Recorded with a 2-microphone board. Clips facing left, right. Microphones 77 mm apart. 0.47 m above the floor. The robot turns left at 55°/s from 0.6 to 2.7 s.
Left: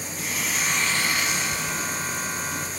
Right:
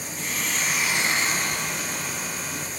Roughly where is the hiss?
Ahead.